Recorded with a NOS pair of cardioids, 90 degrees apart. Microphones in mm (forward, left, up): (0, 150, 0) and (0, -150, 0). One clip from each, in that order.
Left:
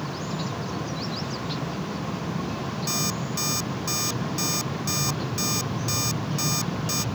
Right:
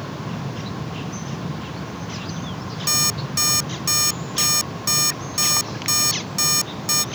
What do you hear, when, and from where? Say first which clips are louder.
2.9 s an alarm clock: right 8 dB; 55° right